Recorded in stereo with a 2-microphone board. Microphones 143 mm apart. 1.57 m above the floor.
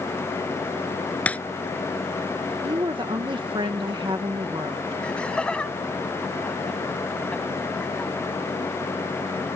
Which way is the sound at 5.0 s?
5° left (ahead or behind).